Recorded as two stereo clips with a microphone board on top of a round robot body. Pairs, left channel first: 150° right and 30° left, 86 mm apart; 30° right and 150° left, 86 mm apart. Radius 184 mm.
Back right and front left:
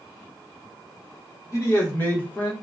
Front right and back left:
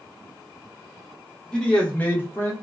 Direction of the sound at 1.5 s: 110° right.